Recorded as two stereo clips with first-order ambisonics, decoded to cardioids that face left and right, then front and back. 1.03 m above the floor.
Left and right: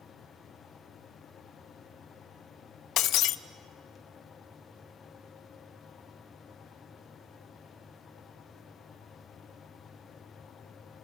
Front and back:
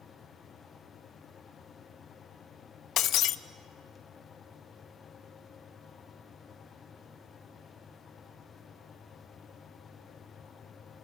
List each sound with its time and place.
3.0 s breaking glass: 45° left, 0.6 m